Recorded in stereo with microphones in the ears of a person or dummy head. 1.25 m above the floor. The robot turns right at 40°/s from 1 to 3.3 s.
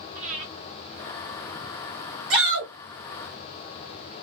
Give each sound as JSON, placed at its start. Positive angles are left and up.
{"t": 0.1, "sound": "breathing", "side_deg": -35, "distance_m": 0.9}
{"t": 2.3, "sound": "a shout", "side_deg": -60, "distance_m": 1.2}